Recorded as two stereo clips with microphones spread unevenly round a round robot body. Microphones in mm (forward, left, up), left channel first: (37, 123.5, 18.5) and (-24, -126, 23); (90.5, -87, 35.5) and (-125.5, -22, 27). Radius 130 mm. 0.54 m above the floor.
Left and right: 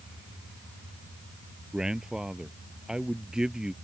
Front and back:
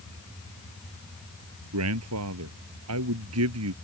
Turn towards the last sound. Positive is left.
turn(degrees=170)